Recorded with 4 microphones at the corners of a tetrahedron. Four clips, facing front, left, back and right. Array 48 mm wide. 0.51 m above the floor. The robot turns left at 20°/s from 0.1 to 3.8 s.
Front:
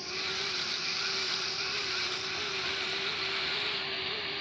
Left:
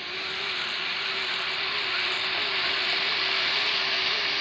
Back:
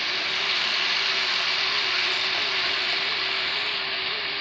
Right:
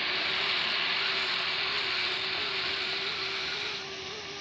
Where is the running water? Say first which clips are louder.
Right 2 dB, back 9 dB; 160° right; by 4.4 s 125° left.